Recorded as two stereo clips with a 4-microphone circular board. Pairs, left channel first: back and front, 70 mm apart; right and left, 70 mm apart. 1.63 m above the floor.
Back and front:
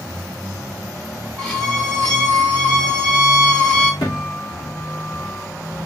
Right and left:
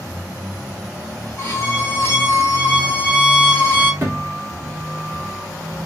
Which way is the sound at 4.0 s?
145° left.